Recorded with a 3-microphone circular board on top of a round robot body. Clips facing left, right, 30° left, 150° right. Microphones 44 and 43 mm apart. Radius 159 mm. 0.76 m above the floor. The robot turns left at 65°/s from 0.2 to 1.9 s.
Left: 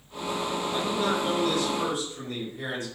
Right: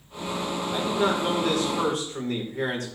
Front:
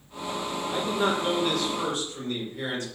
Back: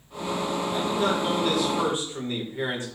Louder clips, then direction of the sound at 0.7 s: Right 4 dB, even; 10° right.